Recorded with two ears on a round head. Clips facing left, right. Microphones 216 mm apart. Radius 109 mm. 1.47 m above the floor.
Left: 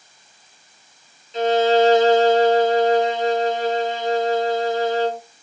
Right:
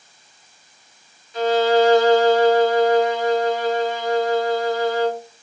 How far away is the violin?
About 0.6 m.